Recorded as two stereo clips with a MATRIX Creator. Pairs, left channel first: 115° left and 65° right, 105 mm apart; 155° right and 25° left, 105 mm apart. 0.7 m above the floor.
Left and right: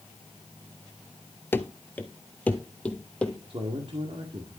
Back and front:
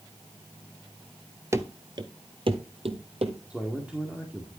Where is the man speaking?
55° right, 2 m.